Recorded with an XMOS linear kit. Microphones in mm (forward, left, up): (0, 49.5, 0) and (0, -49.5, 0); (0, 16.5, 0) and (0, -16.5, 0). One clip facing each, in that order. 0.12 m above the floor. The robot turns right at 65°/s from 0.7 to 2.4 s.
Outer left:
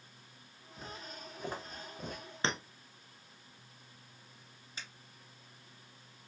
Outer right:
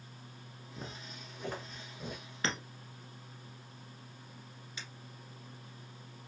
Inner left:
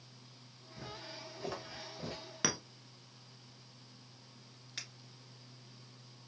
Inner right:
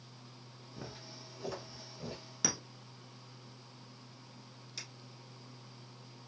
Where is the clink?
30° left (ahead or behind), 0.7 m.